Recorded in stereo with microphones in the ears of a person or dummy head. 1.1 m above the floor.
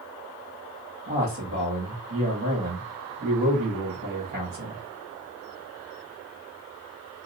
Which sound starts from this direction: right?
A man speaking, at 1.1 s.